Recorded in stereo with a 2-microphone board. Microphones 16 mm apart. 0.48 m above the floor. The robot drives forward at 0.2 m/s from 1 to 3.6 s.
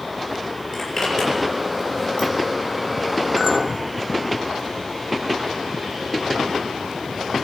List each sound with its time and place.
0.7 s a zipper: 15° left (ahead or behind), 7.5 m
3.4 s a clink: 5° right (ahead or behind), 0.7 m